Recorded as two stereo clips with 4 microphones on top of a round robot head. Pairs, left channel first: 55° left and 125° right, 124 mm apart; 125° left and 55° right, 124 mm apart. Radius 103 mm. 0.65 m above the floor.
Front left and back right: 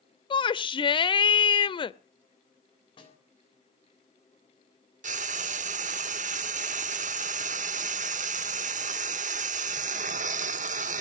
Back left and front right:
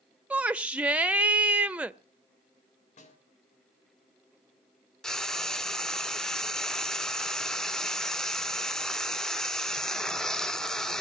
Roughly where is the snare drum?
Left.